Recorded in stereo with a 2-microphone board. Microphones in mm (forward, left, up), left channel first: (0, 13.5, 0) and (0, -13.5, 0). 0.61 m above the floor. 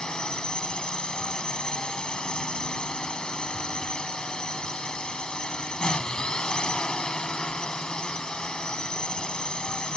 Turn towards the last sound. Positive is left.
turn(degrees=35)  # may be behind; listen again after turning